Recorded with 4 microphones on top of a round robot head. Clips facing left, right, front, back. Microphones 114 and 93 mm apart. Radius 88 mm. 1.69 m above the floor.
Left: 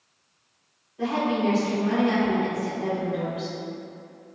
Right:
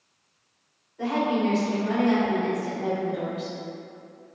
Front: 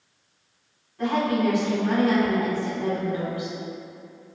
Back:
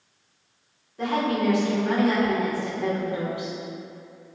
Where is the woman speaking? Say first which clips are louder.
Even, front 1 dB; 175° left, 1.5 m.